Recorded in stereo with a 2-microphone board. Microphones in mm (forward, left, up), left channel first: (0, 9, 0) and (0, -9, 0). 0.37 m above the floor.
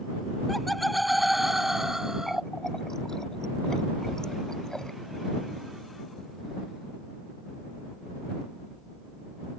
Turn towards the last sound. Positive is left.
turn(degrees=35)  # may be behind; listen again after turning